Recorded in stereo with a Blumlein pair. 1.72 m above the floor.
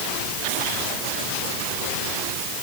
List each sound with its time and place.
Only background noise.